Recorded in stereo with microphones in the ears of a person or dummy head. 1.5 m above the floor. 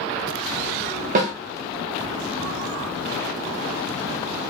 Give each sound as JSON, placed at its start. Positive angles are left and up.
{"t": 1.1, "sound": "a snare drum", "side_deg": -40, "distance_m": 0.8}